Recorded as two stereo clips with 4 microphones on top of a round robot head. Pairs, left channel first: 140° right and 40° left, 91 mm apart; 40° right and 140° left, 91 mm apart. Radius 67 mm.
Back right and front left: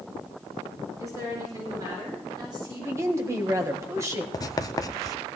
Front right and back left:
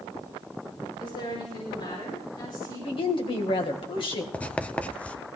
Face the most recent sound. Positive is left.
turn(degrees=-110)